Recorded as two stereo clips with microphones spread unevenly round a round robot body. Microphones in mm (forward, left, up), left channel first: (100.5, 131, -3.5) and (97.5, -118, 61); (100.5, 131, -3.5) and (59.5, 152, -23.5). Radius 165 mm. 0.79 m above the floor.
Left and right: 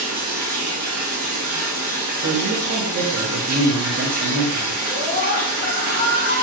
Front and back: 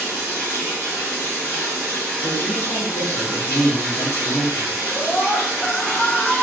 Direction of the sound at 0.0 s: 75° right.